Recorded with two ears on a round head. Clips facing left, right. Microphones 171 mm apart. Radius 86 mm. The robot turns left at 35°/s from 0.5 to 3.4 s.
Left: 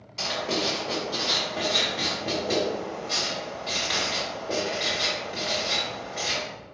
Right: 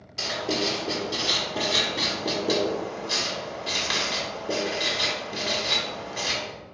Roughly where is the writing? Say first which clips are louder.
Right 1 dB; centre.